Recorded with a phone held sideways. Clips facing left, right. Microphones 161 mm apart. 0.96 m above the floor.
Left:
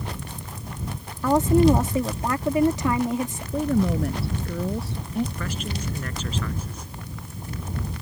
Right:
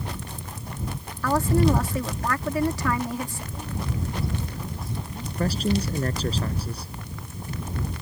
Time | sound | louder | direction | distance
1.2 | a woman speaking | left 4 dB | 20° left (ahead or behind) | ?
3.5 | a woman speaking | left 12 dB | 75° left (ahead or behind) | ?
5.3 | a man speaking | right 7 dB | 35° right (ahead or behind) | ?